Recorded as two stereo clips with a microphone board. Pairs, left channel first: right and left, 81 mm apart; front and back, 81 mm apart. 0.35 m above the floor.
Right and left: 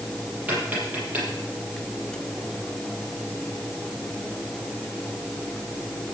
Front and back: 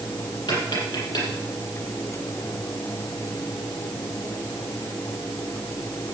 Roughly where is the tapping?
Ahead.